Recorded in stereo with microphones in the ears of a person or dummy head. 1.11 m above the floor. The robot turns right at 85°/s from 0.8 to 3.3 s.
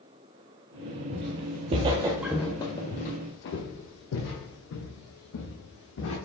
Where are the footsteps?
25° right (ahead or behind), 1.2 m; by 6.2 s 70° left (ahead or behind), 3.5 m.